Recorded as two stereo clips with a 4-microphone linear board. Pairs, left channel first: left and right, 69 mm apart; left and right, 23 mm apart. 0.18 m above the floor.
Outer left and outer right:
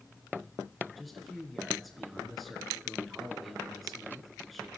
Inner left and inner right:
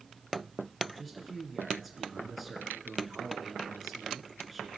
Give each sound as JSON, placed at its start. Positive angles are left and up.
{"t": 1.0, "sound": "a man speaking", "side_deg": 0, "distance_m": 2.5}